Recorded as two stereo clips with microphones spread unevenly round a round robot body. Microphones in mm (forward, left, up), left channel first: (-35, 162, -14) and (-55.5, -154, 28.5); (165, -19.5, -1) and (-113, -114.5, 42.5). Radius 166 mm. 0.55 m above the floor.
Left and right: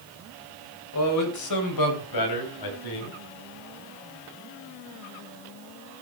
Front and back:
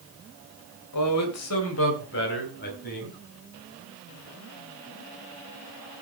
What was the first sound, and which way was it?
A man speaking, 45° left.